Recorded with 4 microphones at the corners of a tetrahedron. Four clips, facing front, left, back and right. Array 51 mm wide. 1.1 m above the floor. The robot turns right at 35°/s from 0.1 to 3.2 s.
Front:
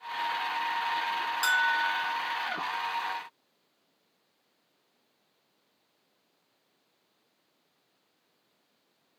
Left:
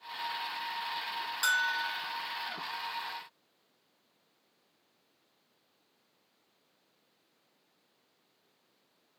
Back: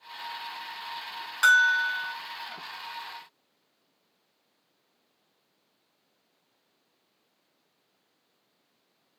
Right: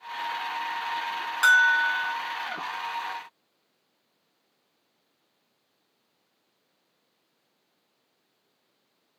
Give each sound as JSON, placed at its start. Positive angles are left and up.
{"t": 1.4, "sound": "a bell", "azimuth_deg": -135, "distance_m": 0.8}